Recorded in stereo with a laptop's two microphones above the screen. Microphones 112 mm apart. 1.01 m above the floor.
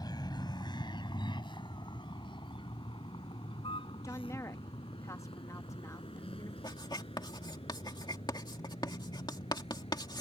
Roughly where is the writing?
Left.